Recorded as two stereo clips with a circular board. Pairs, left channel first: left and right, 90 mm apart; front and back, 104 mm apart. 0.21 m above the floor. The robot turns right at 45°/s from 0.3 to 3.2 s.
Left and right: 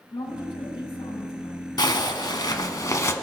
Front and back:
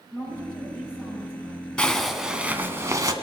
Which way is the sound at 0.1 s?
70° left.